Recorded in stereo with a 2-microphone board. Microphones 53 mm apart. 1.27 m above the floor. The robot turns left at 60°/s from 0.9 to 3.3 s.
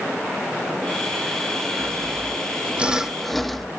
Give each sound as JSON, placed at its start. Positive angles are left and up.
{"t": 1.8, "sound": "sawing", "azimuth_deg": -95, "distance_m": 0.9}